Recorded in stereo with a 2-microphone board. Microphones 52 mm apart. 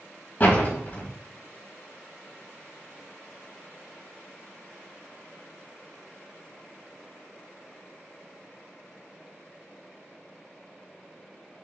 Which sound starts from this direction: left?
A door slam, at 0.4 s.